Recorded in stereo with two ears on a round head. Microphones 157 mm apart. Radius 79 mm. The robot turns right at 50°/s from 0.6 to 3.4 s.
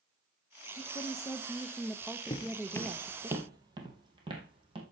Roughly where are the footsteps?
Left.